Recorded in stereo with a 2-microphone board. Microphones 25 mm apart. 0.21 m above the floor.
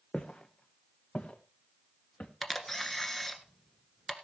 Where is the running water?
I don't hear running water.